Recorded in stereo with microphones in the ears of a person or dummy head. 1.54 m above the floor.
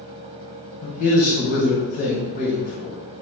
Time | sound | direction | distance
0.8 | a man speaking | 50° left (ahead or behind) | 1.1 m